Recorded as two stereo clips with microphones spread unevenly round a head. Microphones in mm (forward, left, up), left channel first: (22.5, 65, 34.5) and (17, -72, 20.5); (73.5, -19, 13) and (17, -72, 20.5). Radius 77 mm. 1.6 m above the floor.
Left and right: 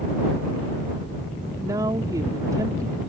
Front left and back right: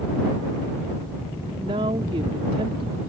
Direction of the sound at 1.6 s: 160° right.